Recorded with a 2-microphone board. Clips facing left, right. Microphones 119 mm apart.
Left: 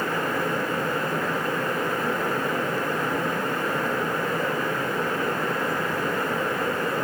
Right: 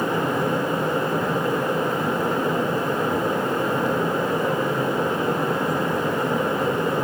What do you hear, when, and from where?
Only background noise.